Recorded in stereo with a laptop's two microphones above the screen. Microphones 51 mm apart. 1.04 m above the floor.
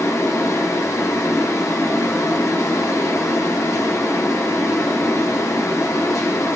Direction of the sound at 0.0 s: 80° left.